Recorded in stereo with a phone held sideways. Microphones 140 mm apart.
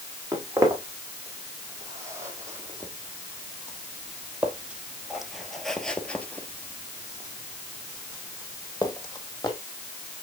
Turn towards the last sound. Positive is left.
turn(degrees=30)  # may be behind; listen again after turning